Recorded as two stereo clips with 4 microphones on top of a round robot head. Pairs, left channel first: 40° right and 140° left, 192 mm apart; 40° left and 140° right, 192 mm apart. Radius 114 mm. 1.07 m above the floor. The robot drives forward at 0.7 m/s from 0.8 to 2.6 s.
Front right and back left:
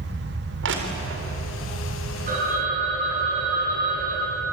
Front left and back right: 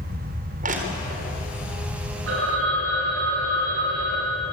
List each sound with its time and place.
0.6 s crushing: 170° left, 3.5 m
2.3 s a phone ringing: 165° right, 10 m